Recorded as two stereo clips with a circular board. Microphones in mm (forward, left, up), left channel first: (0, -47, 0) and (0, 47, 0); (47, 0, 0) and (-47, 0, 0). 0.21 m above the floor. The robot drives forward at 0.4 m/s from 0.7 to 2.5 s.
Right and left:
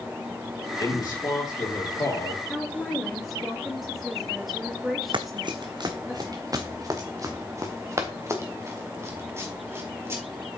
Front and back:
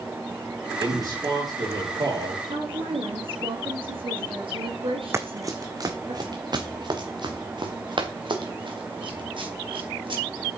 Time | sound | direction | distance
0.8 | a man speaking | 135° right | 4.5 m
2.5 | a woman speaking | straight behind | 3.5 m
5.1 | running footsteps | 120° left | 1.0 m